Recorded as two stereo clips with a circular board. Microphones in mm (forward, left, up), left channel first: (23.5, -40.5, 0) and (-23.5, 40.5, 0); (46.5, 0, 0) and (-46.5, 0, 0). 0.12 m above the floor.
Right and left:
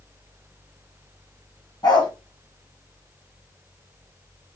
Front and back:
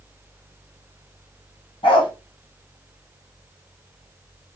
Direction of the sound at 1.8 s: 15° right.